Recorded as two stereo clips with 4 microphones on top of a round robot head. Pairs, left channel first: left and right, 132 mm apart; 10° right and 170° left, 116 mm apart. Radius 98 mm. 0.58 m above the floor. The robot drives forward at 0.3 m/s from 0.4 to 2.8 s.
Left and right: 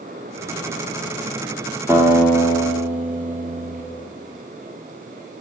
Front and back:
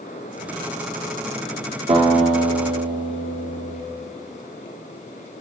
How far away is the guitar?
About 1.1 m.